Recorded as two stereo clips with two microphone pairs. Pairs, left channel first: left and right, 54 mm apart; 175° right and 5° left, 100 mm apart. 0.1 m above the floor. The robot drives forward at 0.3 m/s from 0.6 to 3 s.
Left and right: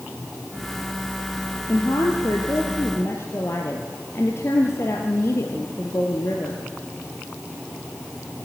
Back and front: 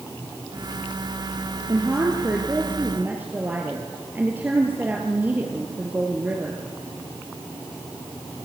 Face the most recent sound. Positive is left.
turn(degrees=75)